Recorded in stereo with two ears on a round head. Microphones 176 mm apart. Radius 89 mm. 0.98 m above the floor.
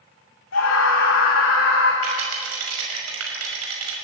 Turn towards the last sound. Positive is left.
turn(degrees=-75)  # may be behind; listen again after turning